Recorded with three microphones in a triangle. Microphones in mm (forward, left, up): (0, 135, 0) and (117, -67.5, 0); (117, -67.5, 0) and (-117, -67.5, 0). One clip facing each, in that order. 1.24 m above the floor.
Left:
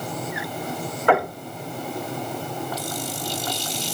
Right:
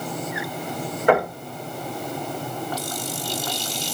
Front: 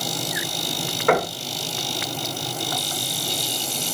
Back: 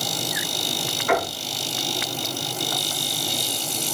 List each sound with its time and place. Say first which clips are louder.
1.1 s knocking: right 2 dB, front 4 dB; 10° left, 6.5 m